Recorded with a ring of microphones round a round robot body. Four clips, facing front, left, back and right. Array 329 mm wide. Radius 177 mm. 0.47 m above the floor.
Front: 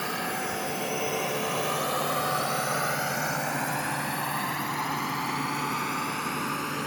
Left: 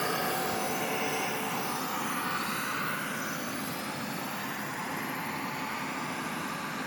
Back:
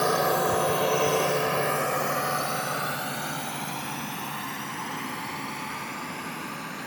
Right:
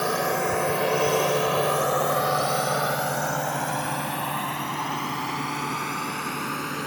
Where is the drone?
150° right; by 6.9 s 60° right.